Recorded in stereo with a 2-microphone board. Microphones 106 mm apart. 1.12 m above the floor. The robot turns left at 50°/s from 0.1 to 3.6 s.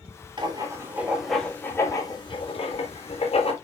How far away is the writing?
About 3 m.